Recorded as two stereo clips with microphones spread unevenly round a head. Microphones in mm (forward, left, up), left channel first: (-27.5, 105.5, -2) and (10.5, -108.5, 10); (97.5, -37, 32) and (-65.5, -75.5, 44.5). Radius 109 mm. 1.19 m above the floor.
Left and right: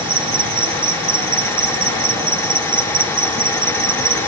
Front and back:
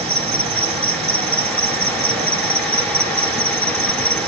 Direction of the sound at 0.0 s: 135° right.